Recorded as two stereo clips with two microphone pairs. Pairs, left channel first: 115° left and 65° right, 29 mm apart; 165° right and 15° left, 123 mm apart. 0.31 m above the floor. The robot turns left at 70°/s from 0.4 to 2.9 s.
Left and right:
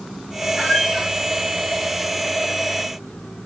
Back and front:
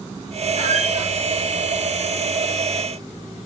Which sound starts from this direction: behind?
A squeak, at 0.6 s.